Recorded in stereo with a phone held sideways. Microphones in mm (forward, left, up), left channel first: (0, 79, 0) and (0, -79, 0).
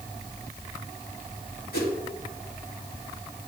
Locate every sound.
1.7 s a whoosh: 75° left (ahead or behind), 2.0 m